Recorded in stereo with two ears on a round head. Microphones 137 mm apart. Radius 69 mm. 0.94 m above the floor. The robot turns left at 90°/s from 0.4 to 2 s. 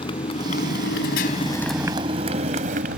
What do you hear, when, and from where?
0.0 s a motorcycle: 35° left (ahead or behind); by 3.0 s 60° right (ahead or behind)